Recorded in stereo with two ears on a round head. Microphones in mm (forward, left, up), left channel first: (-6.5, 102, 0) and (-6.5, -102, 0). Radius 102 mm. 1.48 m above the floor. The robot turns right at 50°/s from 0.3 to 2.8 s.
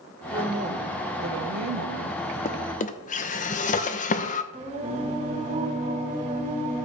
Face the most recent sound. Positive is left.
turn(degrees=-35)  # may be behind; listen again after turning